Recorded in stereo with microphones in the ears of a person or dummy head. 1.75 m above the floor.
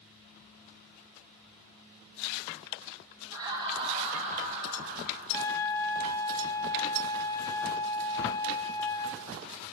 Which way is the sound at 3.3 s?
20° right (ahead or behind).